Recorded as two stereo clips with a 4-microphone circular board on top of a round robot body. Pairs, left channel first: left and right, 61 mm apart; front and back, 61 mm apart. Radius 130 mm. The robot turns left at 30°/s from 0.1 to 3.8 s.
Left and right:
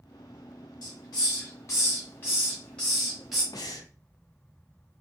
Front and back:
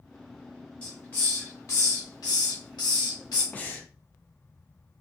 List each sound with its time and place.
0.8 s a hiss: 70° left, 0.8 m; by 3.4 s 5° right, 0.8 m
3.5 s breathing: 65° left, 0.6 m; by 3.9 s 60° left, 0.6 m